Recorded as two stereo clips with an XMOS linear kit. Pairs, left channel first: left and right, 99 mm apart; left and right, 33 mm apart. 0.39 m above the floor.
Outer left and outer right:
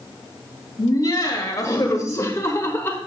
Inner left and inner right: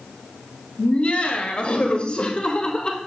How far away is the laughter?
About 2 m.